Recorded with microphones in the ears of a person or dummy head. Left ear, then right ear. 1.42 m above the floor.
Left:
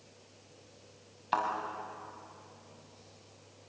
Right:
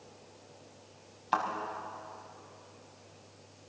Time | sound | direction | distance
1.3 | a thud | centre (ahead or behind) | 5 m